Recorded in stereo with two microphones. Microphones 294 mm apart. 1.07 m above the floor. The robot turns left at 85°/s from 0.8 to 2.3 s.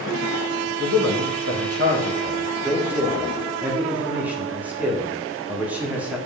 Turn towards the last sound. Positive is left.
turn(degrees=-175)